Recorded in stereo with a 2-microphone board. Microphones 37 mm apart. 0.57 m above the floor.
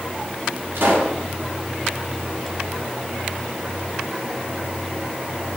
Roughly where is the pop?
Right.